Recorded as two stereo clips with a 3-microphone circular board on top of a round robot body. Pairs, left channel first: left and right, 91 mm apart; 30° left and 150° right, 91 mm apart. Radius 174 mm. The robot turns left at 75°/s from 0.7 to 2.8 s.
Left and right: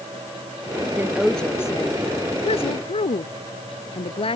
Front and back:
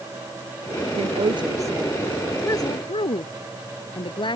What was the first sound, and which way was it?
A woman speaking, 155° right.